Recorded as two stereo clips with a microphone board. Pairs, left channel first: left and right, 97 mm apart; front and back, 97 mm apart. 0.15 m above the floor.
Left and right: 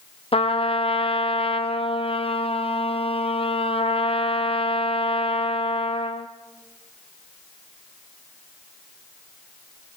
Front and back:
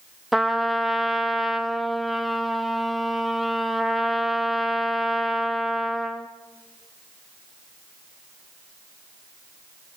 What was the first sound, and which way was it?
A trumpet, 90° left.